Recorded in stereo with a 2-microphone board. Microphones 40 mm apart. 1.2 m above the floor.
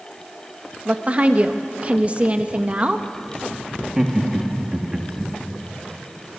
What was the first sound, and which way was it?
A woman speaking, 35° right (ahead or behind).